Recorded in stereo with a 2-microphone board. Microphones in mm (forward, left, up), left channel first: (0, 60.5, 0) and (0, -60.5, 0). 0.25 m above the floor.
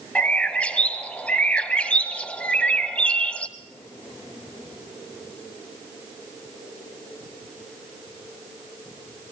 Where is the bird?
10° left (ahead or behind), 1.4 m.